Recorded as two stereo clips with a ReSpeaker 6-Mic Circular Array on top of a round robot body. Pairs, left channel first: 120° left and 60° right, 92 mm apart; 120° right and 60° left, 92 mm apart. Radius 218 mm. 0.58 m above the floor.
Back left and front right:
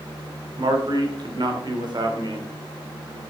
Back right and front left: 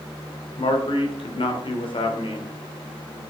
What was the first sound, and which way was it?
A man speaking, 100° right.